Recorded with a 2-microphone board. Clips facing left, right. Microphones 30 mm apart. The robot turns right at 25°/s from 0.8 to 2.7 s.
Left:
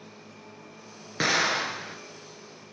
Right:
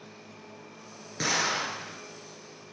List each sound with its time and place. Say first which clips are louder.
1.2 s an explosion: left 3 dB; 35° left (ahead or behind), 1.2 m